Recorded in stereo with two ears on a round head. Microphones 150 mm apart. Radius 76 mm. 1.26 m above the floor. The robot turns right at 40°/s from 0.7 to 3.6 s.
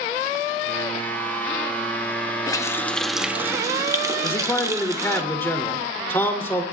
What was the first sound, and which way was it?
A running tap, 155° left.